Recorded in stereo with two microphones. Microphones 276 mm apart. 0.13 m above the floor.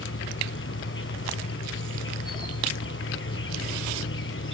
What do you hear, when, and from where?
0.0 s an insect: 50° left (ahead or behind), 0.8 m